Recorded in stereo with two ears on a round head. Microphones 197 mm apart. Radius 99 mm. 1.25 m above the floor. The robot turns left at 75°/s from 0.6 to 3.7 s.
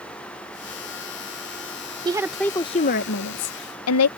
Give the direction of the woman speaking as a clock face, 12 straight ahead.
5 o'clock.